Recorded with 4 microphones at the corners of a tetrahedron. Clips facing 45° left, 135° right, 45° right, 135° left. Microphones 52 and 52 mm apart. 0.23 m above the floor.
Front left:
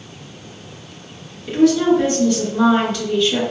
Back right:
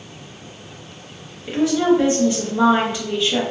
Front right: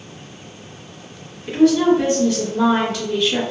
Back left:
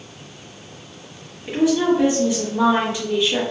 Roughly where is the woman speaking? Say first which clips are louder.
Front left 3 dB, front right 4 dB; behind.